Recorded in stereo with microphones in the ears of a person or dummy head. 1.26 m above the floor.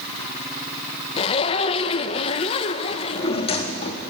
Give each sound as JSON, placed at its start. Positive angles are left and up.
{"t": 1.2, "sound": "a zipper", "side_deg": 35, "distance_m": 0.9}
{"t": 2.9, "sound": "a drawer", "side_deg": 30, "distance_m": 1.5}